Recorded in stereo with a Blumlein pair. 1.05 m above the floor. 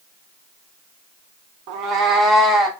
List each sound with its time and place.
1.7 s a cat meowing: 45° right, 0.6 m; by 2.7 s straight ahead, 1.1 m